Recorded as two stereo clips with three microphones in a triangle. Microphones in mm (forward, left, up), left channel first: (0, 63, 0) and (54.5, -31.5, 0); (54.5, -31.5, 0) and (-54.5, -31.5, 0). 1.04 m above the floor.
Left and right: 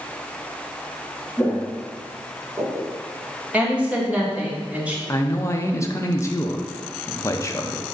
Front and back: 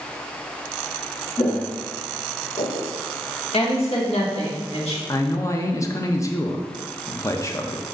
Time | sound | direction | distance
1.4 | footsteps | 35° left | 2 m
3.5 | a woman speaking | 15° left | 1.7 m
5.1 | a man speaking | 60° left | 0.7 m